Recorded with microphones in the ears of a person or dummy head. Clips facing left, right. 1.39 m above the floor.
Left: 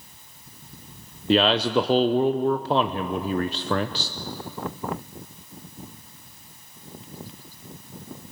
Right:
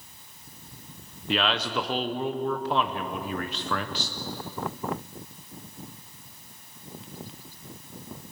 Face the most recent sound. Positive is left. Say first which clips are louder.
# left 8 dB
turn(degrees=30)  # may be behind; listen again after turning